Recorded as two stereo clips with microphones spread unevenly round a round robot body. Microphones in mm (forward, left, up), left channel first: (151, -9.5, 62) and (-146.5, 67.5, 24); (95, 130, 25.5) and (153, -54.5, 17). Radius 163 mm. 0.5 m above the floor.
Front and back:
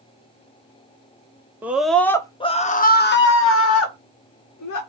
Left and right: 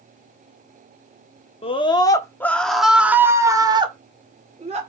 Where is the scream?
105° left, 1.3 m; by 4.8 s 30° right, 1.9 m.